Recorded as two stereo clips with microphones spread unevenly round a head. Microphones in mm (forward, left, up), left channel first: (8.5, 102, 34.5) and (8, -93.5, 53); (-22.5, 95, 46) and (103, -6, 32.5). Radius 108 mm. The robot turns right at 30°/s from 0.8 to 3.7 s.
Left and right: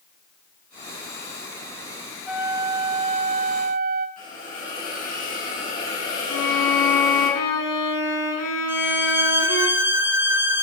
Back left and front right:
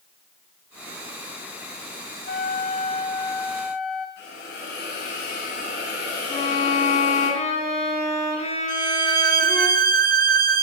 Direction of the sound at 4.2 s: 140° left.